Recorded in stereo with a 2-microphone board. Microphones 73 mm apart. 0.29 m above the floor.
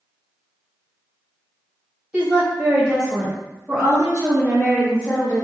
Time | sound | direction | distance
2.1 | a woman speaking | 15° right (ahead or behind) | 1.6 m